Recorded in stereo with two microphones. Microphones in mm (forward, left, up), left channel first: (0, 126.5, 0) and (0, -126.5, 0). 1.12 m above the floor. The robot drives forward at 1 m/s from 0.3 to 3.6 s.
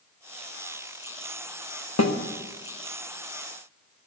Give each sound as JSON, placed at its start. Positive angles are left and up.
{"t": 2.0, "sound": "a snare drum", "side_deg": 75, "distance_m": 1.4}